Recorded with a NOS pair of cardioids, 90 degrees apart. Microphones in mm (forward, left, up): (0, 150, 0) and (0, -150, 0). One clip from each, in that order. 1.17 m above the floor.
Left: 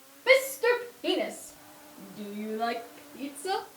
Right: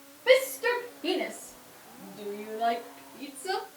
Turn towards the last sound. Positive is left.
turn(degrees=20)